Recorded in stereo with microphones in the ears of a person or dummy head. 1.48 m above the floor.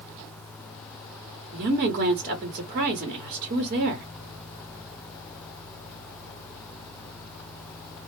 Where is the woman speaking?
40° right (ahead or behind), 0.9 m.